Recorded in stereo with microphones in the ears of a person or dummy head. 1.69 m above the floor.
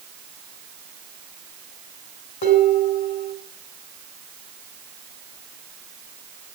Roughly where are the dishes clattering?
Left.